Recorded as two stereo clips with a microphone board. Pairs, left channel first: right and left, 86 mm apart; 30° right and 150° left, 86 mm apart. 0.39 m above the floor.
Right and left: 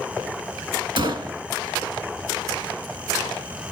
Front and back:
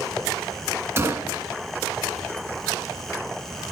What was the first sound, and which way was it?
A gunshot, 95° left.